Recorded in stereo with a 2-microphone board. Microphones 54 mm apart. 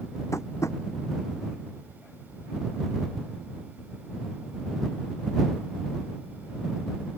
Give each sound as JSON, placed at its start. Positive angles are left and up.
{"t": 0.3, "sound": "tapping", "side_deg": 65}